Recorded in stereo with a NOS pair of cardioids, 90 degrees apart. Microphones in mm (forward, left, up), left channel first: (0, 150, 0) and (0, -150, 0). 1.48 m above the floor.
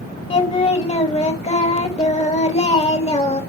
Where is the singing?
20° left, 3 m.